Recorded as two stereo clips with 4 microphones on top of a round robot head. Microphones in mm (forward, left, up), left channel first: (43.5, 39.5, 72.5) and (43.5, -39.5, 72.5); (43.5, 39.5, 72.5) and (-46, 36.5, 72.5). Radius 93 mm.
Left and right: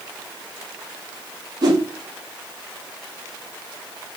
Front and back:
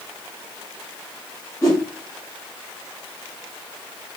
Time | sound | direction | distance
1.6 | a whoosh | 60° right | 0.7 m